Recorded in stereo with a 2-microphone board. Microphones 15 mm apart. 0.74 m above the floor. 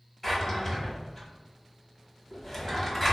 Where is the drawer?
20° left (ahead or behind), 1.0 m.